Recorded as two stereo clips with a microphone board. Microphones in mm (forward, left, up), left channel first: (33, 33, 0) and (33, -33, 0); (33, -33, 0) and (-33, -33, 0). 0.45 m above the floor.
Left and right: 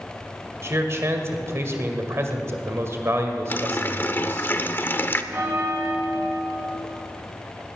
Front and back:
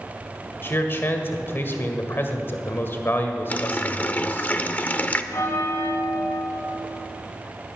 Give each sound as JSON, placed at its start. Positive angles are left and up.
{"t": 0.6, "sound": "a man speaking", "azimuth_deg": -50, "distance_m": 1.8}
{"t": 3.5, "sound": "a running tap", "azimuth_deg": 50, "distance_m": 0.7}
{"t": 5.3, "sound": "a bell", "azimuth_deg": -45, "distance_m": 2.5}